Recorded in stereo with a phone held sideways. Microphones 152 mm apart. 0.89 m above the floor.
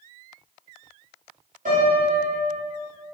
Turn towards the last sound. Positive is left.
turn(degrees=-60)  # may be behind; listen again after turning